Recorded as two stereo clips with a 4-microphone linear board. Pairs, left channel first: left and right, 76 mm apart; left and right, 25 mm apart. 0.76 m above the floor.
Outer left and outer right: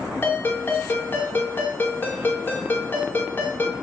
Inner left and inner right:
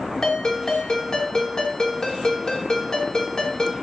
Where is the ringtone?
25° left (ahead or behind), 1.0 m.